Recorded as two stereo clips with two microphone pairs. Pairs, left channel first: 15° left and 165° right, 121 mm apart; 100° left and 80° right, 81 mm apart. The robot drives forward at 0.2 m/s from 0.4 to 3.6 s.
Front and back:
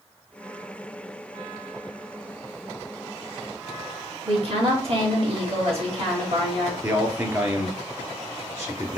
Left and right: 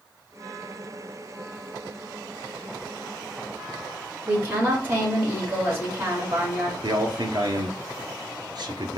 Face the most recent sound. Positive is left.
turn(degrees=-100)